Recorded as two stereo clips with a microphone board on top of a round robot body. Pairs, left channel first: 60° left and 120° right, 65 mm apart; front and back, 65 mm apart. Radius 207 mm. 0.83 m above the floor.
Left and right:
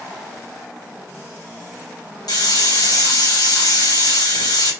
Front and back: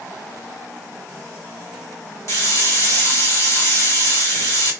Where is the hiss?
40° left, 5 m.